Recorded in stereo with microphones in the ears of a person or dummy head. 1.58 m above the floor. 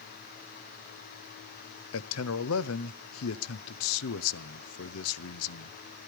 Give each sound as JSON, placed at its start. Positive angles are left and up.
{"t": 1.9, "sound": "a man speaking", "side_deg": 80, "distance_m": 0.8}